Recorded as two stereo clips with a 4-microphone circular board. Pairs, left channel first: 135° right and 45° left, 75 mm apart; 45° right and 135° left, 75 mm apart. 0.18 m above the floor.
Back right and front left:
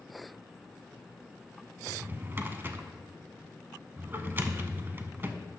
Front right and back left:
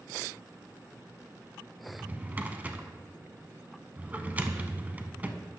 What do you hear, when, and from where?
1.9 s a drawer: 80° left, 0.6 m